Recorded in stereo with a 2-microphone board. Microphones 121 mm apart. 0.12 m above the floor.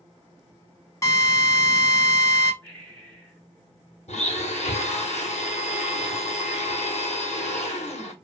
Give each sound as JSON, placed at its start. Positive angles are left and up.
{"t": 1.0, "sound": "a drill", "side_deg": 25, "distance_m": 0.7}
{"t": 2.6, "sound": "breathing", "side_deg": 15, "distance_m": 1.2}
{"t": 4.1, "sound": "a blender", "side_deg": 70, "distance_m": 0.9}